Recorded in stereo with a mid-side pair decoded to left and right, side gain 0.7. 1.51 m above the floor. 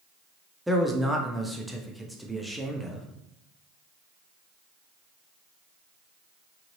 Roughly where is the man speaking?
Ahead.